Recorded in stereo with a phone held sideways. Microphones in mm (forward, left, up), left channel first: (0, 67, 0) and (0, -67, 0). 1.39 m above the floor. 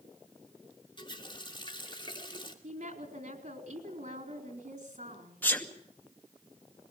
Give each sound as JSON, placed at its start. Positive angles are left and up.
{"t": 1.0, "sound": "a running tap", "side_deg": 35, "distance_m": 2.5}
{"t": 2.6, "sound": "a woman speaking", "side_deg": -80, "distance_m": 4.0}
{"t": 5.4, "sound": "a sneeze", "side_deg": 15, "distance_m": 2.5}